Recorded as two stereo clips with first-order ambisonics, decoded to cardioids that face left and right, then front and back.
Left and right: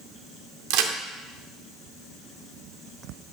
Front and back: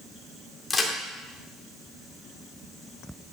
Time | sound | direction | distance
0.7 | a crack | 80° right | 1.6 m